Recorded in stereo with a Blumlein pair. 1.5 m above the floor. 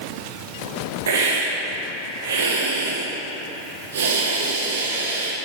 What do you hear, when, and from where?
1.1 s a hiss: 65° right, 1.4 m